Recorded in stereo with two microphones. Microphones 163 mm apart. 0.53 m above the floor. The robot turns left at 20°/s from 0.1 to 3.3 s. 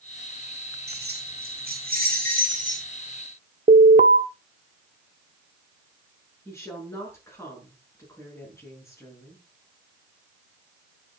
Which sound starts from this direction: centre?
A woman speaking, at 6.5 s.